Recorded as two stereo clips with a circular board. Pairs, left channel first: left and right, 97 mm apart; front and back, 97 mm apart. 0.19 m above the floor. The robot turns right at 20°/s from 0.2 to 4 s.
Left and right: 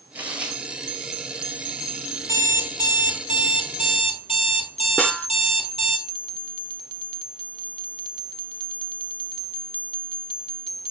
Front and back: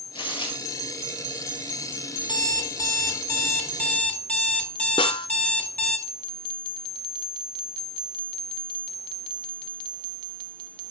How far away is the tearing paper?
About 1.8 m.